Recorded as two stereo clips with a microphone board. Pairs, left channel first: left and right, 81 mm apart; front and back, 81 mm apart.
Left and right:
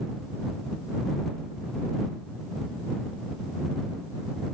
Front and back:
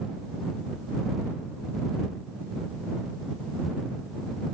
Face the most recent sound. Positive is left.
No sound to turn to.